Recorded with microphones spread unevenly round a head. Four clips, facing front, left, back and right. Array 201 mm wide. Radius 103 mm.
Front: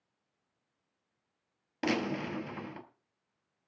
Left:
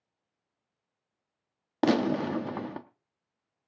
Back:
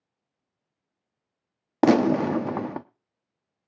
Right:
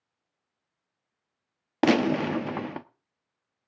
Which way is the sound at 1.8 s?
170° right.